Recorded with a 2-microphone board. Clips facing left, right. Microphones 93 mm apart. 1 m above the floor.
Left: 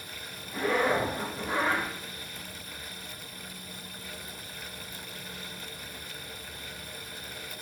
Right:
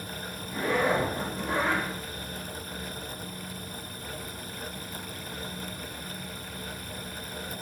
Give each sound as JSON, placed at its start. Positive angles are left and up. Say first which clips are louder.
{"t": 0.5, "sound": "a zipper", "louder": "even", "side_deg": 0, "distance_m": 1.4}